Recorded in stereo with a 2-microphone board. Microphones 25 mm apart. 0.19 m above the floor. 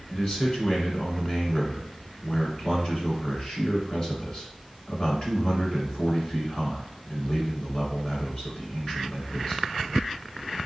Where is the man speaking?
40° left (ahead or behind), 2 m.